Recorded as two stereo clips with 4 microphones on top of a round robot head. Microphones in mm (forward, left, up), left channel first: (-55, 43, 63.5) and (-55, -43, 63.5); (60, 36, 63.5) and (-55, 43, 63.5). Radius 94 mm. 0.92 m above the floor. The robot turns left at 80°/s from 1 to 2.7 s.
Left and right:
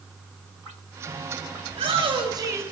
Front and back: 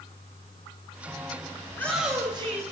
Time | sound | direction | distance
1.7 | a shout | 70° right | 7 m